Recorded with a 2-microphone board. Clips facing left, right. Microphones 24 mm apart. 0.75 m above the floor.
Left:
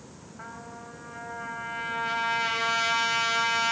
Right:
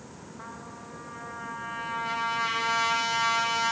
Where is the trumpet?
30° left (ahead or behind), 1.6 m.